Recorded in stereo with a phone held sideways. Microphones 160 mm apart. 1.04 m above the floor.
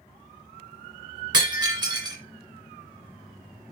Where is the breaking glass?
25° right (ahead or behind), 2 m.